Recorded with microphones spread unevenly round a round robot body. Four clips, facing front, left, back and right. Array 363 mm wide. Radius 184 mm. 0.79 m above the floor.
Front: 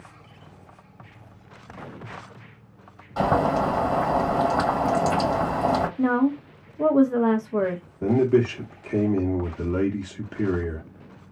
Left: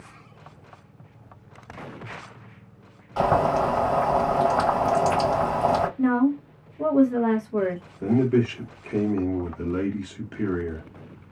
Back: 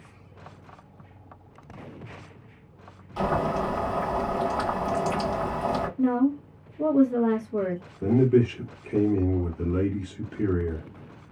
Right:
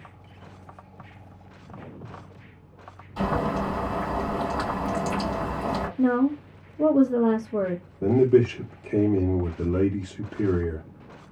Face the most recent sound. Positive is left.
turn(degrees=-55)